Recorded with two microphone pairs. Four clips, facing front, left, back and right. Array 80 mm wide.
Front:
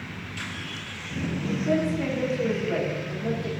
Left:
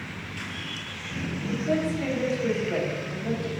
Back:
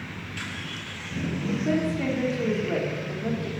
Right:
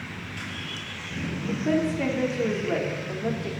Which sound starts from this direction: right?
A woman speaking, at 1.5 s.